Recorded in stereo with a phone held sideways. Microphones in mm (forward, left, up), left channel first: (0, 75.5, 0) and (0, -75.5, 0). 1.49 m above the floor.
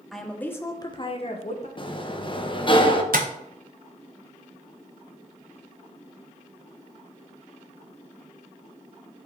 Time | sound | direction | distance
0.1 | a woman speaking | centre (ahead or behind) | 1.1 m
1.8 | a sliding door | 35° left (ahead or behind) | 0.8 m
3.1 | tapping | 80° right | 1.0 m